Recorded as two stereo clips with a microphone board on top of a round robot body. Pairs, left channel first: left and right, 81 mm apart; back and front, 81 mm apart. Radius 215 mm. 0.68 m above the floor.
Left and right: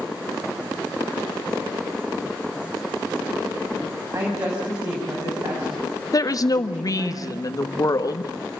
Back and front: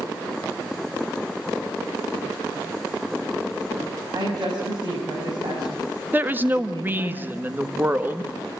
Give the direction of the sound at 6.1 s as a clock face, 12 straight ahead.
10 o'clock.